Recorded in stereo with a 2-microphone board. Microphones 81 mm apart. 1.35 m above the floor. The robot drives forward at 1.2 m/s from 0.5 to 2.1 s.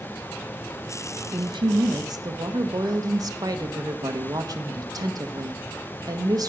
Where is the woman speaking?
75° right (ahead or behind), 1.0 m; by 6.5 s 55° right (ahead or behind), 1.2 m.